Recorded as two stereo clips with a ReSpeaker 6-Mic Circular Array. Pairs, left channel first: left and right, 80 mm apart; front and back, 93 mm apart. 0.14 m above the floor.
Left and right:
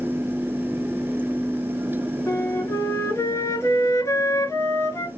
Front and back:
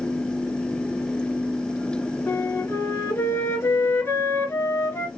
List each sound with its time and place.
2.3 s a flute: 55° left, 1.0 m